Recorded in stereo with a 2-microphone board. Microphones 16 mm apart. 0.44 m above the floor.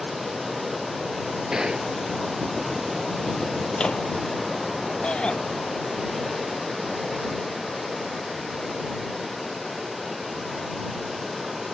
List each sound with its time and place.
1.5 s a gunshot: 45° right (ahead or behind)
3.7 s a microwave: 50° left (ahead or behind)
5.0 s a shout: 80° left